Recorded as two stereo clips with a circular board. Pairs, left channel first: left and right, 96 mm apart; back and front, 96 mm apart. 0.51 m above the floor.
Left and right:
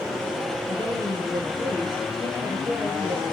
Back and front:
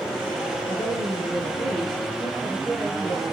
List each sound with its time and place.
0.7 s a woman speaking: 65° right, 7.5 m